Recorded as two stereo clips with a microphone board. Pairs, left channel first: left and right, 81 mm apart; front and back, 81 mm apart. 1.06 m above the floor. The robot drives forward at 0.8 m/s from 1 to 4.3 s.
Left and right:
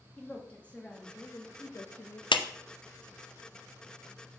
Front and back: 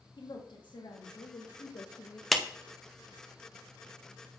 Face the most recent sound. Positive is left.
turn(degrees=160)